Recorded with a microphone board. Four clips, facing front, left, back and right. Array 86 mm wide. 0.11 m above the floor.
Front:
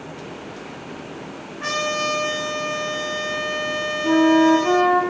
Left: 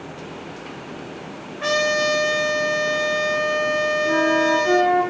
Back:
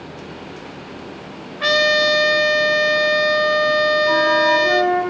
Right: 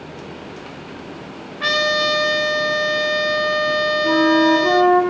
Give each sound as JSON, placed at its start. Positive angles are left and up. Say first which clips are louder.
{"t": 1.6, "sound": "a trumpet", "louder": "right 1 dB, back 7 dB", "azimuth_deg": -145, "distance_m": 1.1}
{"t": 4.0, "sound": "a flute", "louder": "right 5 dB, front 1 dB", "azimuth_deg": -25, "distance_m": 3.5}